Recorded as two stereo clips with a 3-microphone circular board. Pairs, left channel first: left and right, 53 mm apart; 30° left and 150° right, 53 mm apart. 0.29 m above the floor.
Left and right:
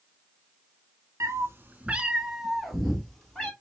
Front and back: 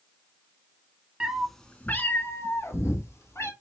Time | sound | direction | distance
1.2 | a cat meowing | 80° right | 0.6 m